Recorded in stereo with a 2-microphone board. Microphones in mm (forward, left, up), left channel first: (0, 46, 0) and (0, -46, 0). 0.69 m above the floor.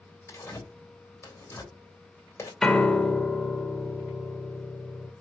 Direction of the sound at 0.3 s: 35° left (ahead or behind).